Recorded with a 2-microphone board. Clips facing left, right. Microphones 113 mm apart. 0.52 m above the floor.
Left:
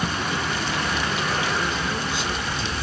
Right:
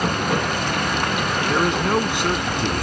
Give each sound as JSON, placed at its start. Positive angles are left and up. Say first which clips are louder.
{"t": 0.0, "sound": "running water", "louder": "right 5 dB", "side_deg": -65}
{"t": 1.5, "sound": "a man speaking", "louder": "right 7 dB", "side_deg": -75}